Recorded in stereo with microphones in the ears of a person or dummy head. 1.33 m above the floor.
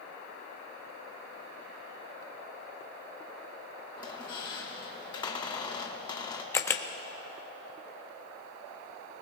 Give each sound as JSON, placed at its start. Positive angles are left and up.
{"t": 4.0, "sound": "a squeak", "side_deg": 20, "distance_m": 1.2}
{"t": 6.5, "sound": "a camera shutter", "side_deg": 10, "distance_m": 0.8}